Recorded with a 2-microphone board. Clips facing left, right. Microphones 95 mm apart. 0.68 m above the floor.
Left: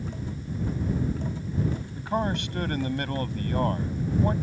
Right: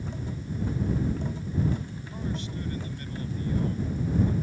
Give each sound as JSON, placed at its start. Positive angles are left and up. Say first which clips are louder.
{"t": 2.0, "sound": "a man speaking", "louder": "left 7 dB", "side_deg": 70}